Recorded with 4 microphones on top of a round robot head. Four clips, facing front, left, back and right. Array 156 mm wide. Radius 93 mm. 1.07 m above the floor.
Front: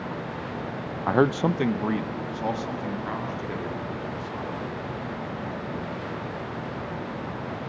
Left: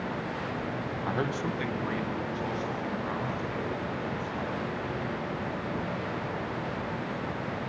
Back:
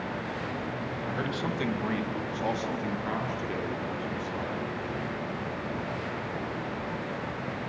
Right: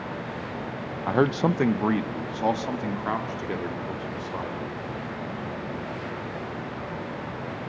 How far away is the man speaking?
About 0.7 m.